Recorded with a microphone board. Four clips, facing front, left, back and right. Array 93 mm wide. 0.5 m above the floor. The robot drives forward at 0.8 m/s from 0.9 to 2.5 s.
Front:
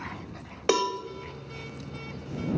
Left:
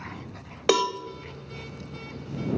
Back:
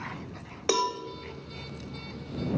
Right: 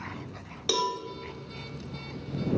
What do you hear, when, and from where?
0.7 s a cowbell: 75° left, 0.6 m; by 1.0 s 80° left, 0.6 m